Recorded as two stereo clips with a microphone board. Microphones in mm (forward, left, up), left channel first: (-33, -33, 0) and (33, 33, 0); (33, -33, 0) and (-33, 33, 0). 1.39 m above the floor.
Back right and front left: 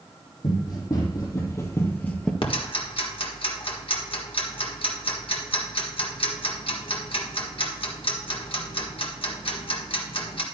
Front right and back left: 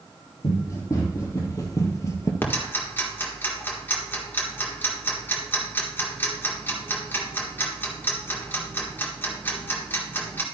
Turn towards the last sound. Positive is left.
turn(degrees=-115)